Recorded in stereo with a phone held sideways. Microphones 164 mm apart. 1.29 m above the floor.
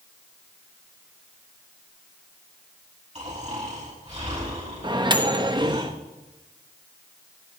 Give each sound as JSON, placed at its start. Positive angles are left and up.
{"t": 3.1, "sound": "snoring", "side_deg": -40, "distance_m": 6.0}
{"t": 4.8, "sound": "a microwave", "side_deg": -30, "distance_m": 0.9}